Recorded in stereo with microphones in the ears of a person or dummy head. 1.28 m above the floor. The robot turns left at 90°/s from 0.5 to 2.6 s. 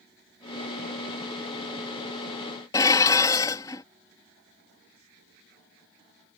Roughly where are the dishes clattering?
Centre.